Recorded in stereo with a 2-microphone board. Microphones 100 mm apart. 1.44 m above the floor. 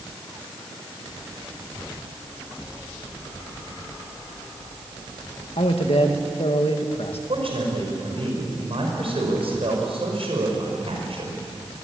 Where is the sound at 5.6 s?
80° left, 2 m.